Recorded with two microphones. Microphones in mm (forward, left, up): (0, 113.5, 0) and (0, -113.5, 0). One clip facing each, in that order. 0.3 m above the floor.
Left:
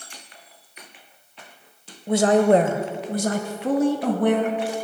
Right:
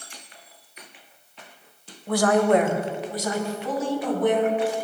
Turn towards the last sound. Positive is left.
turn(degrees=65)  # may be behind; listen again after turning